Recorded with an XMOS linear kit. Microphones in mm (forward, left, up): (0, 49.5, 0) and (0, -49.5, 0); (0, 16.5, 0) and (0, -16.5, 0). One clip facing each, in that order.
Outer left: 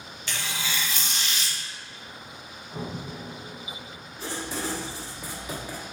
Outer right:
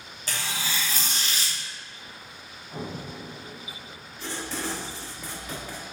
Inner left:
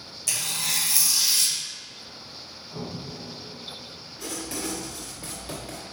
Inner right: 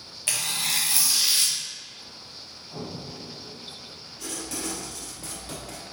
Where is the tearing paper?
40° right (ahead or behind), 0.6 m.